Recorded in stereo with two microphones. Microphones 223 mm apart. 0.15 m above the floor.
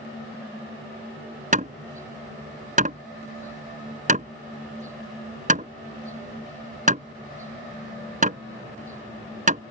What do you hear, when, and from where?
1.5 s hammering: 35° right (ahead or behind)